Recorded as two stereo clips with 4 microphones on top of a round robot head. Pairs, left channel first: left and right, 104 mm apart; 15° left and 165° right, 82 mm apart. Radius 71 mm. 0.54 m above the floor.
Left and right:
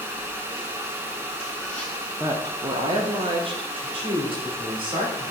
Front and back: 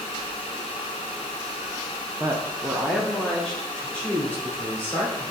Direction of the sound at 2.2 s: 125° right.